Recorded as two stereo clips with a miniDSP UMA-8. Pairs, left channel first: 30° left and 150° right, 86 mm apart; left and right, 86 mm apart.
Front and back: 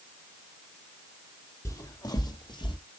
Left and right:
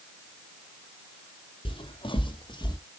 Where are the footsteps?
85° left, 2.5 m; by 2.8 s 55° left, 2 m.